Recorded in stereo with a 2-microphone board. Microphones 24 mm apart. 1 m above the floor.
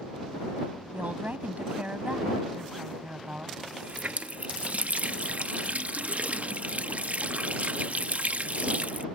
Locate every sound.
0.9 s a woman speaking: 85° right
3.6 s a running tap: 75° right (ahead or behind)